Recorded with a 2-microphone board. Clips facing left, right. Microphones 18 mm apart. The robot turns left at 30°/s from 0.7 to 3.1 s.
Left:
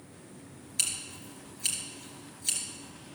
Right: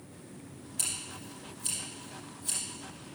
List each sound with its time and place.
0.8 s scissors: 45° left (ahead or behind), 3 m; by 2.6 s 55° left (ahead or behind), 3 m